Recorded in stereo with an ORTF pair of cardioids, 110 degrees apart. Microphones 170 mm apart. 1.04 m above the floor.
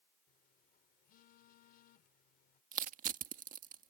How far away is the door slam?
No door slam in this recording.